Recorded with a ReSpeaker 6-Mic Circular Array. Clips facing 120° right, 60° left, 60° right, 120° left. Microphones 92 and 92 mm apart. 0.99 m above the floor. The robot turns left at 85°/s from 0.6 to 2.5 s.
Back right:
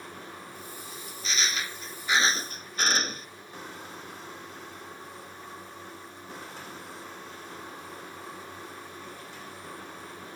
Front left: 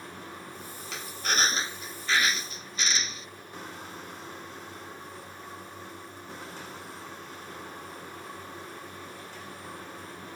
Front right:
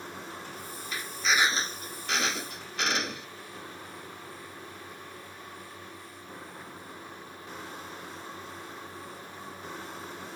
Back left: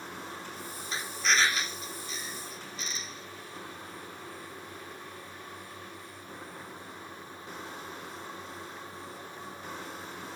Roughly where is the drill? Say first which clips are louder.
Front left 6 dB, even; ahead left.